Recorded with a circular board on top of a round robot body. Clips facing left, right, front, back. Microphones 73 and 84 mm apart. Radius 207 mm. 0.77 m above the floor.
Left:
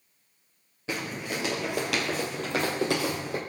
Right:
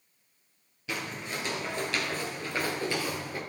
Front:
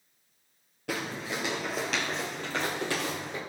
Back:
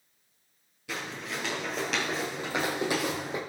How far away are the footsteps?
About 1.0 m.